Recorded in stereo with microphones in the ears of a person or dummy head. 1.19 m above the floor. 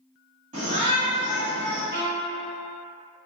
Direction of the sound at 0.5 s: 40° right (ahead or behind).